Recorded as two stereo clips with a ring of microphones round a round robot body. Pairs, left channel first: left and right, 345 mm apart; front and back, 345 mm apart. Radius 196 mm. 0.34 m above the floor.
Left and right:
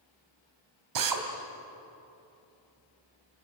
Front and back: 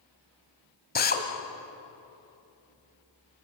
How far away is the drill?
About 3 m.